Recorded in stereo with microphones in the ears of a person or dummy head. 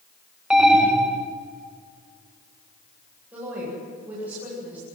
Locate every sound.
0.5 s an alarm: 5° right (ahead or behind), 2.0 m
3.3 s a woman speaking: 15° right (ahead or behind), 10 m